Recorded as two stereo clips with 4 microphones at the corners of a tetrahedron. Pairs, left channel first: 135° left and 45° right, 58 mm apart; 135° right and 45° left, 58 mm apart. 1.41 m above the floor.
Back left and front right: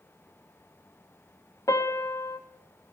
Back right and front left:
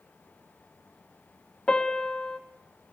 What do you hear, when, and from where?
1.7 s a piano: 145° left, 1.2 m